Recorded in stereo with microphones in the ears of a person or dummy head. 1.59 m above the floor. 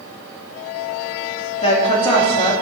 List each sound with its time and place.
1.6 s a woman speaking: 35° left (ahead or behind), 2.5 m